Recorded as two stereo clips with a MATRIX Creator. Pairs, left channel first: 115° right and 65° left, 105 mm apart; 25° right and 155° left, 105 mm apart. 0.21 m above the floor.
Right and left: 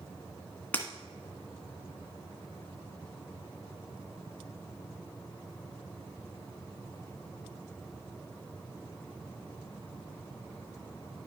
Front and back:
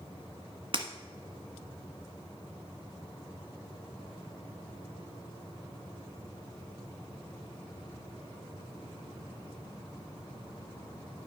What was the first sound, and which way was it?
Breaking glass, 175° left.